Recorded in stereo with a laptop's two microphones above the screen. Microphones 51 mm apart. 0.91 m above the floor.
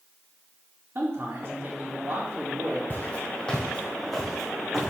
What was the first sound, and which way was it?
A man speaking, 60° right (ahead or behind).